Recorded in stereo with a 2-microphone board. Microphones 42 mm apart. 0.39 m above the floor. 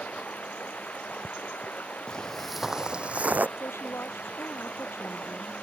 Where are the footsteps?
20° left (ahead or behind); by 3.5 s 45° right (ahead or behind).